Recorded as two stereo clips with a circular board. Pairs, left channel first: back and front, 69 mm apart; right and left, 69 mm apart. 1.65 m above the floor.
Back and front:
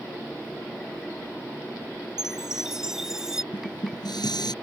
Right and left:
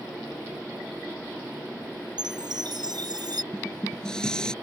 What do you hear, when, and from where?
2.2 s a chime: 80° left
3.5 s dishes clattering: 170° right